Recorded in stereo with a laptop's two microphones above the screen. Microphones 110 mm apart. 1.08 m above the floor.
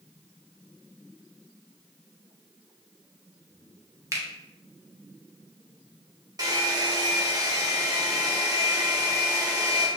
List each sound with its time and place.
4.1 s a finger snap: 30° right (ahead or behind), 0.9 m
6.4 s a hair dryer: 35° right (ahead or behind), 0.8 m